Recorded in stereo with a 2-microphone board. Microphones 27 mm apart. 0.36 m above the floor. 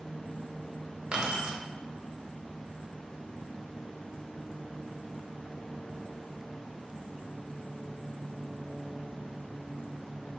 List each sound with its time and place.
1.1 s keys jangling: 35° right (ahead or behind), 0.8 m